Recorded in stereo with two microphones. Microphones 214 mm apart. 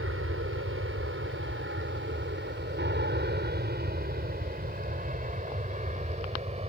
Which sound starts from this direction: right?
An aircraft, at 0.0 s.